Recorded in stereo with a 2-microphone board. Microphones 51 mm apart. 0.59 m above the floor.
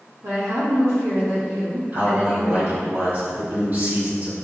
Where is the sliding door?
No sliding door in this recording.